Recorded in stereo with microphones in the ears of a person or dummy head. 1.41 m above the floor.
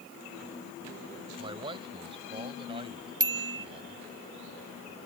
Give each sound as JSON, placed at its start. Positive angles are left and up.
{"t": 1.4, "sound": "a man speaking", "side_deg": -30}
{"t": 3.2, "sound": "a bicycle bell", "side_deg": -25}